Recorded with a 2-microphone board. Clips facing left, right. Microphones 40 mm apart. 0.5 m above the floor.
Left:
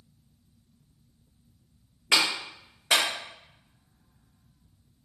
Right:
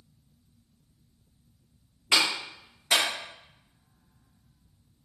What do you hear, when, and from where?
2.1 s a clap: 60° left (ahead or behind), 1.8 m